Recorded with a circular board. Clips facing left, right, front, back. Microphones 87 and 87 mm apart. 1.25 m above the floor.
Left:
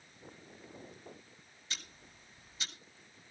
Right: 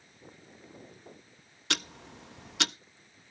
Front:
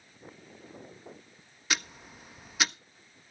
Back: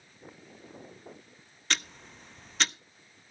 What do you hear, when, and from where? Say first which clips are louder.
1.7 s ticking: right 13 dB, even; 80° right, 0.5 m